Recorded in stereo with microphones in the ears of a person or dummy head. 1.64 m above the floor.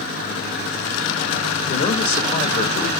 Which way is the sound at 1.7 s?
30° left (ahead or behind).